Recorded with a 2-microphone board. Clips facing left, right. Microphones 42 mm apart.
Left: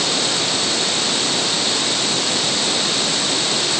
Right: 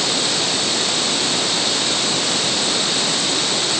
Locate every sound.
Only background noise.